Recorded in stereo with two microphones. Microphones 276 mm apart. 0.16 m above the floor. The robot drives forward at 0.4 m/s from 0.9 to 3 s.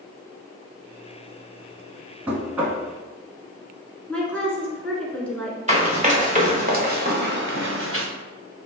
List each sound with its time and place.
2.3 s knocking: 5° right (ahead or behind), 1.0 m
4.1 s a woman speaking: 5° left (ahead or behind), 1.6 m
5.7 s running footsteps: 25° right (ahead or behind), 1.9 m; by 8.1 s 55° right (ahead or behind), 0.8 m